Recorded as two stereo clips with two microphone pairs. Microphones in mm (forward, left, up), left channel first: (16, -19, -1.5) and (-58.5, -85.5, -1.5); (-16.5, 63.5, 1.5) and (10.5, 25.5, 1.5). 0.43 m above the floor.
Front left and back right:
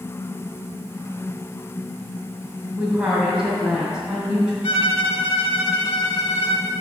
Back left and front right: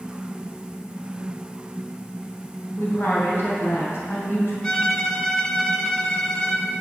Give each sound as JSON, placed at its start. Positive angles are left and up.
{"t": 2.8, "sound": "a woman speaking", "azimuth_deg": 140, "distance_m": 2.5}
{"t": 4.6, "sound": "a violin", "azimuth_deg": 55, "distance_m": 0.8}